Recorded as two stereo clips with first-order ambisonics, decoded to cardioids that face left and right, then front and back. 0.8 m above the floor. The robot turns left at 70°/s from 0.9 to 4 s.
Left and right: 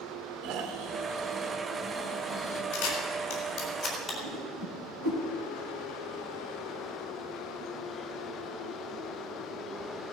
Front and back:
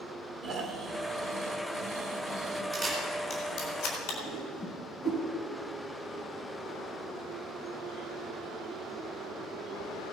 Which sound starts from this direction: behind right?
Snoring, at 0.4 s.